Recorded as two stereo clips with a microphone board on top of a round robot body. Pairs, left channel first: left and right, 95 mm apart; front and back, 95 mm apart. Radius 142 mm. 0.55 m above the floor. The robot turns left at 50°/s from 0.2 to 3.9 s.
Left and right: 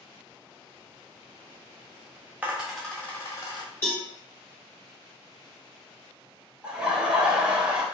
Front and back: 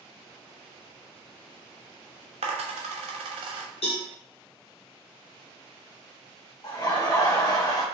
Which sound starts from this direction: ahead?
Laughter, at 6.6 s.